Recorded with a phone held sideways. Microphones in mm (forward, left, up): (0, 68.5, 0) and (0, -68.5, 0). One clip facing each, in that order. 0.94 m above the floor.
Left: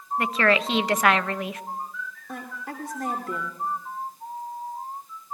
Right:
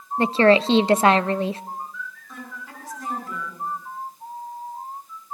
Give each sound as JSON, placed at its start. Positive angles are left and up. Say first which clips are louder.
{"t": 0.2, "sound": "a woman speaking", "louder": "right 7 dB", "side_deg": -30, "distance_m": 0.7}
{"t": 2.3, "sound": "a woman speaking", "louder": "left 3 dB", "side_deg": 65, "distance_m": 2.5}